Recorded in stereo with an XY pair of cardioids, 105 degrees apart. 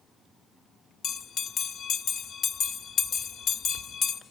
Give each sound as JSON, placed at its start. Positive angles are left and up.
{"t": 1.0, "sound": "a bell", "azimuth_deg": 60, "distance_m": 1.2}